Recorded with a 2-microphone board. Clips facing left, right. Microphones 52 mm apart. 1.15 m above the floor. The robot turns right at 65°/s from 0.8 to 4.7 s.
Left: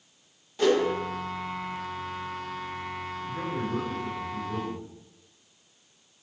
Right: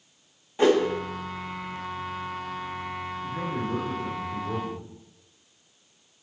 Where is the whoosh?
25° right (ahead or behind), 0.9 m.